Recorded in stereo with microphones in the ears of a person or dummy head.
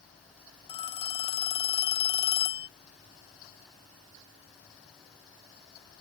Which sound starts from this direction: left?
A phone ringing, at 0.7 s.